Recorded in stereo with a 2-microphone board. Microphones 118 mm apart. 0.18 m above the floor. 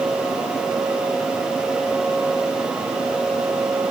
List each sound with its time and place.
Only background noise.